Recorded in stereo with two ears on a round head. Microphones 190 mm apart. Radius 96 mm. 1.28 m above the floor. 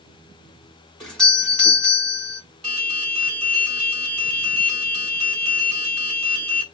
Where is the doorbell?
Centre (ahead or behind), 3 m.